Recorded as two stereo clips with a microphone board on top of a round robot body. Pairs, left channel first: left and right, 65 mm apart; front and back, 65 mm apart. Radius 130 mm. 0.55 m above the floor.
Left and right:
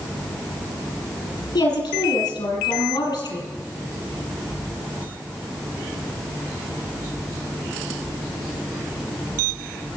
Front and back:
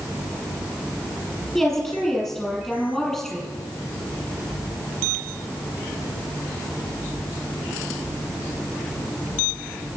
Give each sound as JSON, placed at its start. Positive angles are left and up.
{"t": 1.6, "sound": "a woman speaking", "azimuth_deg": 90, "distance_m": 6.5}